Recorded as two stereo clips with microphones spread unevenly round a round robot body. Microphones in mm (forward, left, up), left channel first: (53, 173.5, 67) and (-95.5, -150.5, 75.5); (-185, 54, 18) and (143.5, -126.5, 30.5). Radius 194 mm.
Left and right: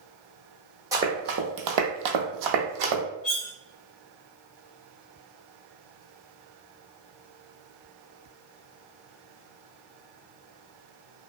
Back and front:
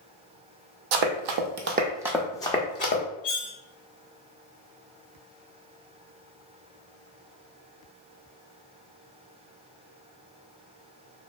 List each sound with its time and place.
0.9 s running footsteps: 35° right, 0.7 m; by 3.0 s 140° right, 1.1 m
3.2 s cutlery clinking: 90° left, 1.4 m